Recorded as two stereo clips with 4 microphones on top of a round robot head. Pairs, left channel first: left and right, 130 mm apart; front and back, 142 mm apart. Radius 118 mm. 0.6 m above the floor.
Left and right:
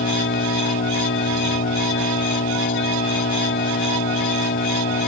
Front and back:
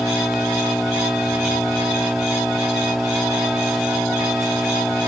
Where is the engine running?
90° left.